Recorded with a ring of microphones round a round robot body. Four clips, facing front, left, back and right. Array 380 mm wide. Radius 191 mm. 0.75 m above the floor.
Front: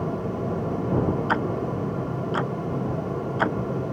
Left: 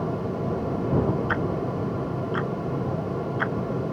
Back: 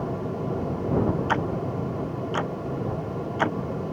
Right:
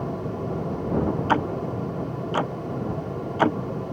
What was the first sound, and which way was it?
Ticking, 85° right.